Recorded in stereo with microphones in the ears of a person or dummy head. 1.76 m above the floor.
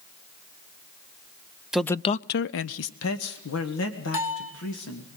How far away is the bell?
About 5.5 m.